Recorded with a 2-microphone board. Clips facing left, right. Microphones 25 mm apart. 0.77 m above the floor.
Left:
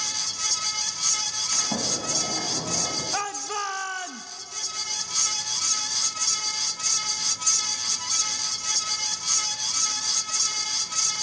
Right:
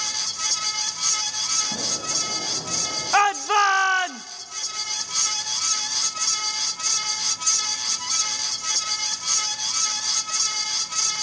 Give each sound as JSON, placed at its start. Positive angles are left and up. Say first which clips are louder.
{"t": 1.5, "sound": "a sliding door", "louder": "right 1 dB", "side_deg": 45, "distance_m": 5.0}
{"t": 3.1, "sound": "a shout", "louder": "right 10 dB", "side_deg": -40, "distance_m": 0.5}